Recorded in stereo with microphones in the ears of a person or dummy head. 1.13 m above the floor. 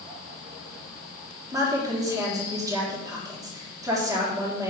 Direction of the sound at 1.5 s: 15° right (ahead or behind).